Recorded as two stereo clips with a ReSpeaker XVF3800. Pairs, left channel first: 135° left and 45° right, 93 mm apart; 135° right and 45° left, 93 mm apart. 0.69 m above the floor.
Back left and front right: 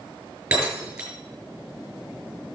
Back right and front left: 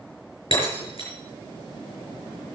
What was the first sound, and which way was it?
Breaking glass, 125° right.